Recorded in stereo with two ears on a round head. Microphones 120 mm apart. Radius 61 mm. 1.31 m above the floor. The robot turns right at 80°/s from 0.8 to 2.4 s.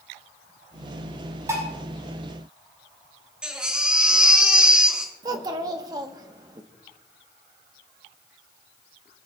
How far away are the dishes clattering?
About 7.5 m.